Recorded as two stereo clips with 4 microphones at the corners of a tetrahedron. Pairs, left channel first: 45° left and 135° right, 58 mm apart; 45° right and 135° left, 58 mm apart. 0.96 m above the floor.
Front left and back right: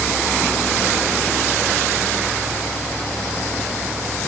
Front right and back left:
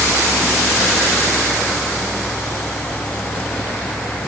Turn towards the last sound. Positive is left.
No sound to turn to.